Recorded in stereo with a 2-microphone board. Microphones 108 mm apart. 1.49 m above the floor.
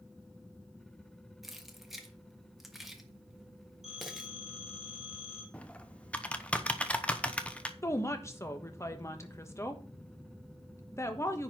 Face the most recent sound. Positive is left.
turn(degrees=25)  # may be behind; listen again after turning